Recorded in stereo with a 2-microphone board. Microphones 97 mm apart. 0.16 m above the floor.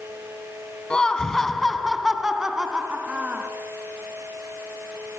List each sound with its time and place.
0.9 s laughter: 10° left (ahead or behind), 1.4 m; by 3.5 s 15° right (ahead or behind), 1.7 m